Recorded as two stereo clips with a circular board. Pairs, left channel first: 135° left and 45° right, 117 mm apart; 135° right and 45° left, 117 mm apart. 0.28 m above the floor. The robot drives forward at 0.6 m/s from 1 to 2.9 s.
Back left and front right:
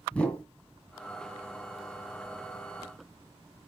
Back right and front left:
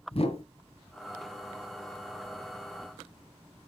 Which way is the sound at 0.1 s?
150° right.